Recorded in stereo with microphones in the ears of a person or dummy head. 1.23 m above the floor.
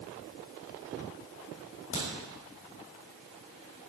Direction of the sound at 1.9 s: 35° left (ahead or behind).